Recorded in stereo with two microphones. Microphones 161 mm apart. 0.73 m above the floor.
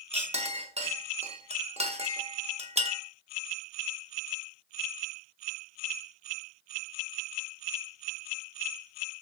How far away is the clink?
About 0.7 m.